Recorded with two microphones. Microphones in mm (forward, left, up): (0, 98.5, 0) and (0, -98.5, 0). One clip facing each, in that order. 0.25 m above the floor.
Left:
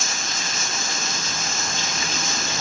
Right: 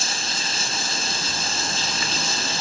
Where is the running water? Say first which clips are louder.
Even; 30° right (ahead or behind), 1.5 m.